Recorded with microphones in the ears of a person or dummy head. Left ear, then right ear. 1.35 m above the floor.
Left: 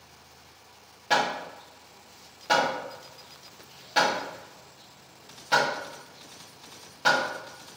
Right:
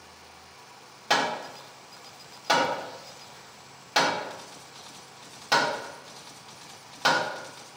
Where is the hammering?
30° right (ahead or behind), 1.2 m.